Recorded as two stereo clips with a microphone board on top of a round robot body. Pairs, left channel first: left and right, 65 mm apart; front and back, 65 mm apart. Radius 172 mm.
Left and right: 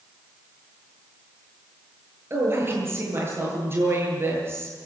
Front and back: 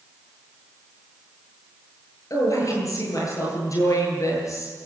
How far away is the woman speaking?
About 10 m.